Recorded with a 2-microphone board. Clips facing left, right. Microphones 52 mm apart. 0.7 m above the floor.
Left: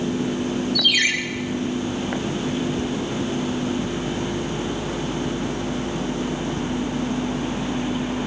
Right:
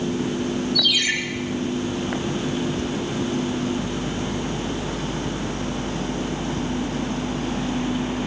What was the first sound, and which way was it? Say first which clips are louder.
A ringtone: left 5 dB; 55° left (ahead or behind).